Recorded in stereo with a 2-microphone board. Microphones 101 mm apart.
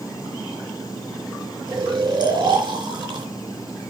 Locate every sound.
1.7 s snoring: 50° right (ahead or behind), 2.5 m